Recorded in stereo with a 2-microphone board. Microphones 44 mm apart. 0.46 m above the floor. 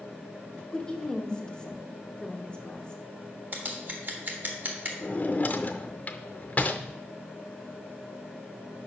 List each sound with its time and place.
0.7 s a woman speaking: 20° left (ahead or behind), 0.8 m
3.5 s scissors: 45° right (ahead or behind), 1.2 m
5.0 s a drawer: 40° left (ahead or behind), 0.5 m